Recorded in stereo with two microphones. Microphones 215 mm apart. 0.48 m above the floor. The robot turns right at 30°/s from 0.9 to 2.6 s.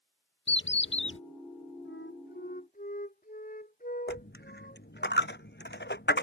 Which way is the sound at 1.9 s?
60° left (ahead or behind).